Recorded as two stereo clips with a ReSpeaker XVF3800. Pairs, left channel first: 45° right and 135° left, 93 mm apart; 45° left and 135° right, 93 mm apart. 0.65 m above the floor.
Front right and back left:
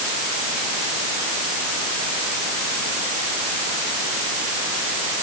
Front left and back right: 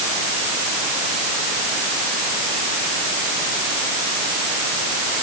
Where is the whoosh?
I don't hear a whoosh.